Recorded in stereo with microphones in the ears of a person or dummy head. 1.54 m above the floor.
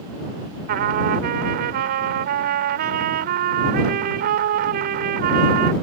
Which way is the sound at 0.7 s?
50° right (ahead or behind).